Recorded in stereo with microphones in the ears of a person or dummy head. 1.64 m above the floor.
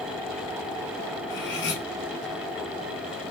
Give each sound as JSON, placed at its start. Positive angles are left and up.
{"t": 1.3, "sound": "cutlery clinking", "side_deg": 55, "distance_m": 2.5}